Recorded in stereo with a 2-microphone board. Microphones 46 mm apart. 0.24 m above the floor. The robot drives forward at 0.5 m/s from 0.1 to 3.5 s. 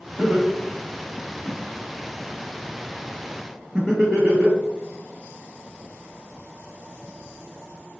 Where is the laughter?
5° right (ahead or behind), 1.4 m.